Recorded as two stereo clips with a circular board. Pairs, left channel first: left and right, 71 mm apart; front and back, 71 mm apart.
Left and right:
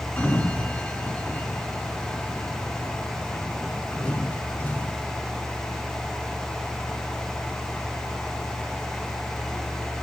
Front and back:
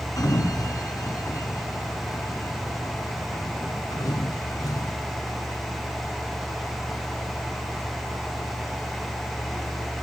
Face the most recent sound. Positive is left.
turn(degrees=25)